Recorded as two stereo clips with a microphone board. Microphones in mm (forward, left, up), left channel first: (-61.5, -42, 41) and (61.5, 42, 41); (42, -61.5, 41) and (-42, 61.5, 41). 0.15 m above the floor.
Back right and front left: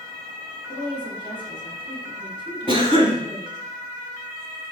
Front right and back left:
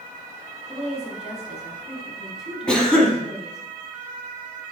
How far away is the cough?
About 1.3 m.